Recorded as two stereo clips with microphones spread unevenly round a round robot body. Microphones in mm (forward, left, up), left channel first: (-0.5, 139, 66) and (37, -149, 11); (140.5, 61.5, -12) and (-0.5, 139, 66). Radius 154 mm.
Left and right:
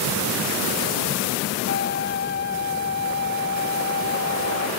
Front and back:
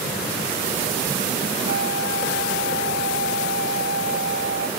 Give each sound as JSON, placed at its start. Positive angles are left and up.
{"t": 1.7, "sound": "a flute", "azimuth_deg": 155}